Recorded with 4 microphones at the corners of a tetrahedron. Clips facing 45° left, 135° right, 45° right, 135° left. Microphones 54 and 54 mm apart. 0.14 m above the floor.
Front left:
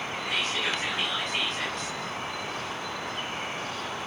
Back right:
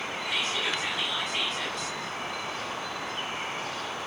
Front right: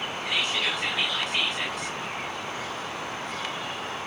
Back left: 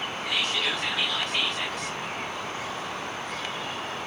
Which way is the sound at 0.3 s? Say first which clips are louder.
Front left 1 dB, even; 30° left.